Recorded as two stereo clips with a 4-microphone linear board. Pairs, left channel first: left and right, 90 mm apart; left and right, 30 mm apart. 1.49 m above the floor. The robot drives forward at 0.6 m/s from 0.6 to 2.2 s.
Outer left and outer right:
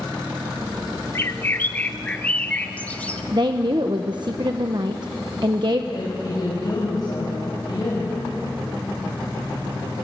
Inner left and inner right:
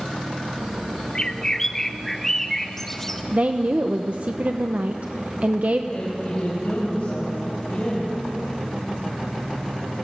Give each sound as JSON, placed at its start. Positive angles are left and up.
{"t": 1.1, "sound": "a bird", "side_deg": 30, "distance_m": 0.7}
{"t": 3.3, "sound": "a woman speaking", "side_deg": -55, "distance_m": 1.0}
{"t": 5.9, "sound": "a woman speaking", "side_deg": 45, "distance_m": 6.5}